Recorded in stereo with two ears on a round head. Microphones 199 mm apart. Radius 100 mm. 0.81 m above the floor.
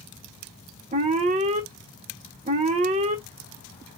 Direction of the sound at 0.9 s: 30° right (ahead or behind).